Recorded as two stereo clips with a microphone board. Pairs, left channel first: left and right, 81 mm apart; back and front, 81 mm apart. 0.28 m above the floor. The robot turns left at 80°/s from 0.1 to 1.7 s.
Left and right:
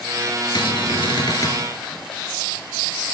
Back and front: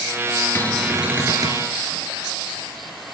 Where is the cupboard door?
115° left, 1.8 m; by 1.6 s 30° left, 1.8 m.